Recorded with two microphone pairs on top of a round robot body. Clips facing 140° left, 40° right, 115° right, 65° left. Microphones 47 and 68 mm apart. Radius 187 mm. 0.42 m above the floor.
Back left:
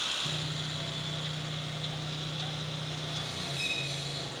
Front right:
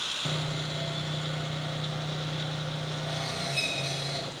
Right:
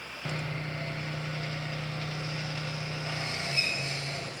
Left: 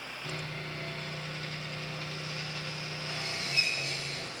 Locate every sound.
0.2 s sawing: 50° right, 0.6 m